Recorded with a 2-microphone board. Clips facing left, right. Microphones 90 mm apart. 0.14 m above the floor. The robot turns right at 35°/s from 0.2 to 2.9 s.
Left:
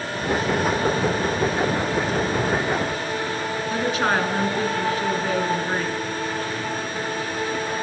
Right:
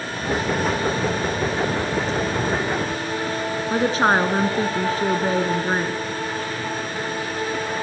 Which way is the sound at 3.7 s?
35° right (ahead or behind).